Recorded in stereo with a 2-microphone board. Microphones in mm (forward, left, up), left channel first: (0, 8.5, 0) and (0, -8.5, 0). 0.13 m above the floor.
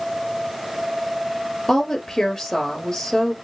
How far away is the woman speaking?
About 2 m.